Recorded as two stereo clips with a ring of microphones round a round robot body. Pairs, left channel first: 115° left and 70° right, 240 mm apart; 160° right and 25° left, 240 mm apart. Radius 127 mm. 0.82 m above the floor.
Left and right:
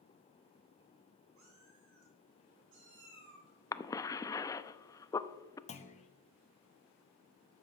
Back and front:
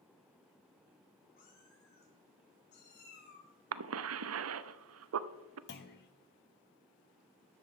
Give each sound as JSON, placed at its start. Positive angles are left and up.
{"t": 1.4, "sound": "a cat meowing", "azimuth_deg": -105, "distance_m": 4.5}
{"t": 3.7, "sound": "a cough", "azimuth_deg": 35, "distance_m": 0.7}
{"t": 5.7, "sound": "a clunk", "azimuth_deg": 170, "distance_m": 1.2}